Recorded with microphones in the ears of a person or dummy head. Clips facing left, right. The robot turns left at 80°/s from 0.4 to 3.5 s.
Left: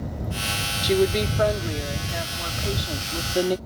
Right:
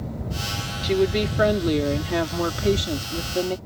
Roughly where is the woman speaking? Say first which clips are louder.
Even; ahead.